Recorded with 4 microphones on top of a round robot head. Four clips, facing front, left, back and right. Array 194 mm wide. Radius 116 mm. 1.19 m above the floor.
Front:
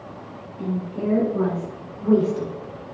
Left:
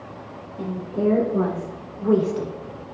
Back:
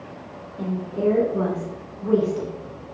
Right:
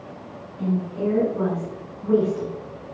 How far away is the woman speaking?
About 3.5 m.